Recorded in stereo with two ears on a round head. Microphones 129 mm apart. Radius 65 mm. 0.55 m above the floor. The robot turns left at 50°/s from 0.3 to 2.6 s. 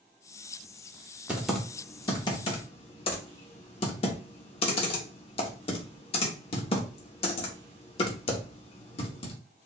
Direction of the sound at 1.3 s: 10° right (ahead or behind).